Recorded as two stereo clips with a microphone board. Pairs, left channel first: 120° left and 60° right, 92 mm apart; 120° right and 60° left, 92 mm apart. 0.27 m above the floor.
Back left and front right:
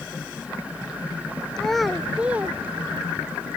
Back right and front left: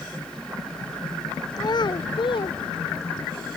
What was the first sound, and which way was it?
A child speaking, 155° right.